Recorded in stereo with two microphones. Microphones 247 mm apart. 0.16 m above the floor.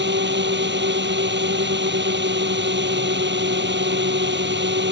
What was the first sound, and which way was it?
A drone, 45° right (ahead or behind).